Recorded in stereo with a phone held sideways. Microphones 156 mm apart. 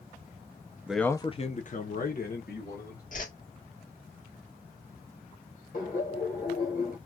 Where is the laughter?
60° left (ahead or behind), 1.5 m.